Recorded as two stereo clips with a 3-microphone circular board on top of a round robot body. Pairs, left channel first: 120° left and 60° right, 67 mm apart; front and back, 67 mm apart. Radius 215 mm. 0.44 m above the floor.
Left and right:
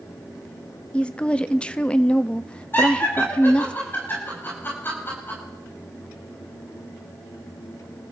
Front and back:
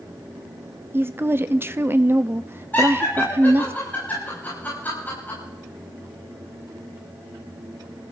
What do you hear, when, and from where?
0.9 s a woman speaking: straight behind, 0.8 m
2.7 s laughter: 60° left, 6.5 m